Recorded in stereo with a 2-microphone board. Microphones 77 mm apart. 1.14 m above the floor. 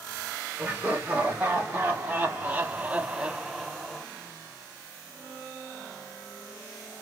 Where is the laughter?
20° right (ahead or behind), 1.5 m; by 4.1 s centre (ahead or behind), 0.7 m.